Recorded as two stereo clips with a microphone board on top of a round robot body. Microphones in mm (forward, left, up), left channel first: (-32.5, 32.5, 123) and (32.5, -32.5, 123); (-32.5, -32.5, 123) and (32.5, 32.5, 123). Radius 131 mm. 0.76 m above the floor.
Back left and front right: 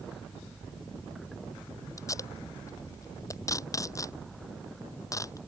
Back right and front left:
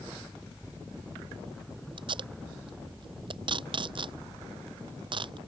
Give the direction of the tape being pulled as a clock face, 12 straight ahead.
9 o'clock.